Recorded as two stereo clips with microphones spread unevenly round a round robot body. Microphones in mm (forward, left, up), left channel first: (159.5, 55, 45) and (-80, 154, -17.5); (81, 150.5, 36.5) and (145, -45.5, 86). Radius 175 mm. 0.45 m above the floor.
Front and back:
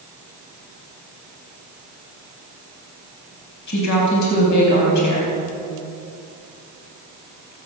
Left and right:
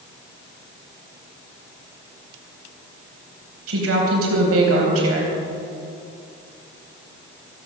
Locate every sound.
3.7 s a woman speaking: 65° right, 3.5 m